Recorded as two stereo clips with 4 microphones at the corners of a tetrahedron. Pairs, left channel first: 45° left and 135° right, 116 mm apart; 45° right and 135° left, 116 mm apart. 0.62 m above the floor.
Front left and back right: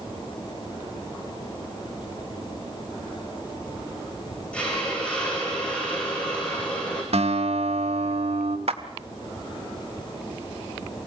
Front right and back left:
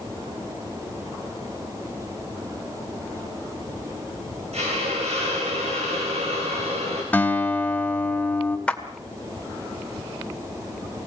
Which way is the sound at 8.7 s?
125° right.